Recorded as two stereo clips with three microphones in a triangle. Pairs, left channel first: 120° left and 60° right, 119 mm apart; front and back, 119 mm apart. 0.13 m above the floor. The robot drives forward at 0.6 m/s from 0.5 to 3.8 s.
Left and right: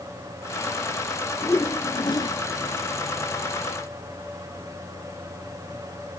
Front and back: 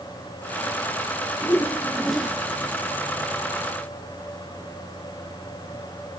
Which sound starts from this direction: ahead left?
A whoosh, at 1.4 s.